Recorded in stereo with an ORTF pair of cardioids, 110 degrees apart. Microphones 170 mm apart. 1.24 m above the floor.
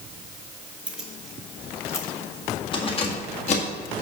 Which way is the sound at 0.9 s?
5° right.